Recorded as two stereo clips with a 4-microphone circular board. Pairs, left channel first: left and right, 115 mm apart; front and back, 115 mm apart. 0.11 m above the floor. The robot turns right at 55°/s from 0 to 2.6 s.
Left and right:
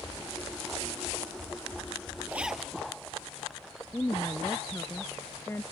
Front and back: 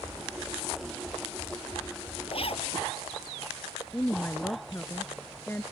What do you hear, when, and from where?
2.3 s a zipper: 20° right; by 2.7 s straight ahead
3.9 s a woman speaking: 50° left